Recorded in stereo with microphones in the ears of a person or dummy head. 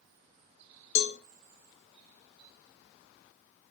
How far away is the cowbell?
About 1.2 m.